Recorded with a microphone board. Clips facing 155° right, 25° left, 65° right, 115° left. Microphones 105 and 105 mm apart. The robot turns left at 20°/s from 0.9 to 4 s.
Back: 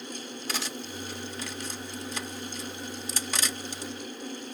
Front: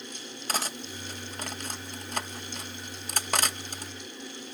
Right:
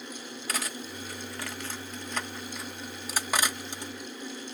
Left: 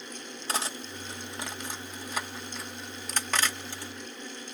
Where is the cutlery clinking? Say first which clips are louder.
Front 3 dB, left 2 dB; 55° left, 0.5 m; by 3.9 s 5° right, 0.5 m.